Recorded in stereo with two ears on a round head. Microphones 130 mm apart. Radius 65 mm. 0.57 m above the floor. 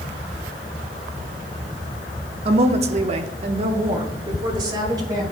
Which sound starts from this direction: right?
A woman speaking, at 2.5 s.